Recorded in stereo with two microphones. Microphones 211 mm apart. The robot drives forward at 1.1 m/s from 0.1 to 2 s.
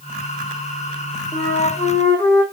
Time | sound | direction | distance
1.3 | a flute | 40° left (ahead or behind) | 2.0 m